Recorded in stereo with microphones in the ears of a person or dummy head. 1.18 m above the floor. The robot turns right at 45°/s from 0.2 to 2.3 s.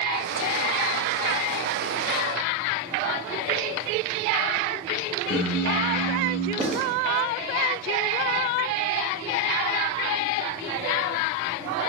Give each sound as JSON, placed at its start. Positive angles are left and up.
{"t": 5.3, "sound": "singing", "side_deg": 55, "distance_m": 1.0}
{"t": 6.6, "sound": "writing", "side_deg": -5, "distance_m": 0.9}